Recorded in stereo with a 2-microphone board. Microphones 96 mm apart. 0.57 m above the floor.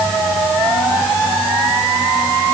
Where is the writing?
I don't hear writing.